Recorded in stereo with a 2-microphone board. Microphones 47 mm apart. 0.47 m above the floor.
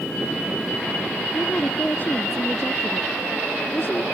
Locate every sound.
1.3 s a woman speaking: 40° left (ahead or behind)